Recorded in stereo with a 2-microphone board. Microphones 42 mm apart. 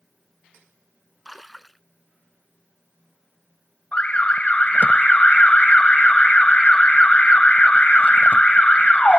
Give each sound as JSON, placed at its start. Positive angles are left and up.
{"t": 1.2, "sound": "a splash", "side_deg": 0}
{"t": 3.9, "sound": "an alarm", "side_deg": 30}